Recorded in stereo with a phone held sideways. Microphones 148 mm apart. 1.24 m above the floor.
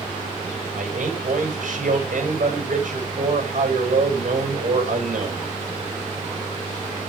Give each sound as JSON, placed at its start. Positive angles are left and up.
{"t": 0.8, "sound": "a man speaking", "side_deg": -70, "distance_m": 7.0}